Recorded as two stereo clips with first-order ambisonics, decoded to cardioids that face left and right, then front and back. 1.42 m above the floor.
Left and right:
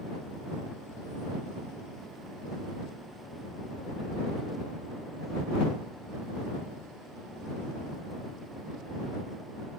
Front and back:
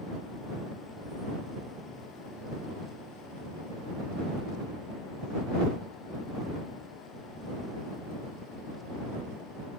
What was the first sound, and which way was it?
Only background noise.